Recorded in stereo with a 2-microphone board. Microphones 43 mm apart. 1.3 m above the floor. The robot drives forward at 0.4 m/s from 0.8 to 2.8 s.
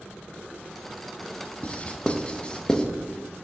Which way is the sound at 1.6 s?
25° left (ahead or behind).